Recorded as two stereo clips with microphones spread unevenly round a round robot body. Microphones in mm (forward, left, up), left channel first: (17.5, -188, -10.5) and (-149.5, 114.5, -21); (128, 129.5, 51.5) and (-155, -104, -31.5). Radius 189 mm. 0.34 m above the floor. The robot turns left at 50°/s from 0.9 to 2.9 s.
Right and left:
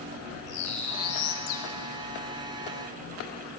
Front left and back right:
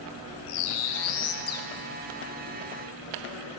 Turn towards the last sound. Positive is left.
turn(degrees=-95)